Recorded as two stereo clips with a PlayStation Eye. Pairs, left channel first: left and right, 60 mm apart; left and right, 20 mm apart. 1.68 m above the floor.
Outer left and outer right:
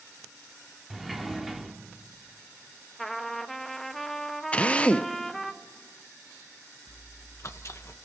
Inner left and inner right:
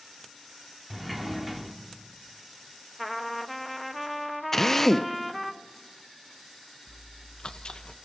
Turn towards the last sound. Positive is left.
turn(degrees=50)  # may be behind; listen again after turning